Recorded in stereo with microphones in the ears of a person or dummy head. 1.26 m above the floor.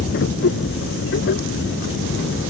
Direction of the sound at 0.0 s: 55° left (ahead or behind).